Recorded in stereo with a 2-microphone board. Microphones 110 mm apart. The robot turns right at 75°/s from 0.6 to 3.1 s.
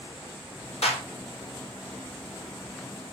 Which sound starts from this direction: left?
A clap, at 0.8 s.